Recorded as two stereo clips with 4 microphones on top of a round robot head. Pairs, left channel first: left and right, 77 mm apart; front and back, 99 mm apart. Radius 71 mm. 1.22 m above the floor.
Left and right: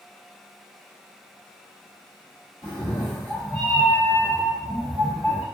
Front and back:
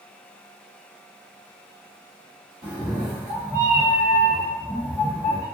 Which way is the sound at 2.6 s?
145° left.